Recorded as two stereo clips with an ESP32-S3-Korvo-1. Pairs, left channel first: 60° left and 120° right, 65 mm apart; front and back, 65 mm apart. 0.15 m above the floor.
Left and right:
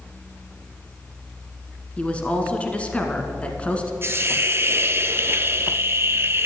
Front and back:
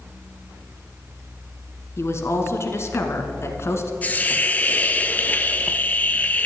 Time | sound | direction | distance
2.0 | a woman speaking | straight ahead | 1.3 m
4.0 | a hiss | 65° right | 0.6 m